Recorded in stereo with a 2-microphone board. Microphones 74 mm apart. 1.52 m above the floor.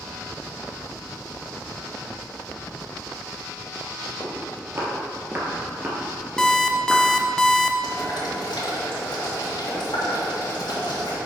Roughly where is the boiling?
Left.